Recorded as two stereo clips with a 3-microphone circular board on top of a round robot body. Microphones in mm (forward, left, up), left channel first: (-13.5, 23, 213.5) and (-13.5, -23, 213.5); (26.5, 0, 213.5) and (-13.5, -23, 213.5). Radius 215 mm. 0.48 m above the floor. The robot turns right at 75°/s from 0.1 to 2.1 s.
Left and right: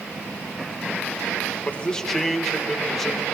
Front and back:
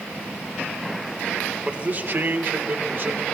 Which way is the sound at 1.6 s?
140° left.